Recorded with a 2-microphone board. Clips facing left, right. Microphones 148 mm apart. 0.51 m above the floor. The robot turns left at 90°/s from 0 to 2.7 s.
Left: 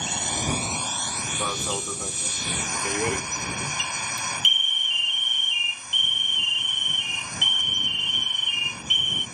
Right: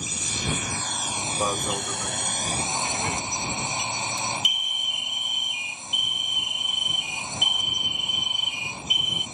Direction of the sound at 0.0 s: 85° left.